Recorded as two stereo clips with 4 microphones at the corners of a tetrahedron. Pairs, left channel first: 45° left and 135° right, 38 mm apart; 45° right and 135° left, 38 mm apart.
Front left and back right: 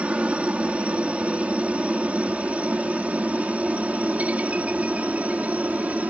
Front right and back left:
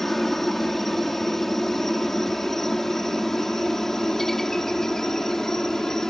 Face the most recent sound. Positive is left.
turn(degrees=-115)